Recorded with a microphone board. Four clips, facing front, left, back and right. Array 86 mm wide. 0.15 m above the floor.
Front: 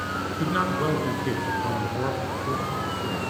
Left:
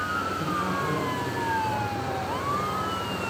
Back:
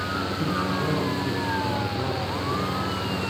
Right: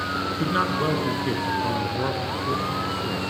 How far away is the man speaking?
About 2 m.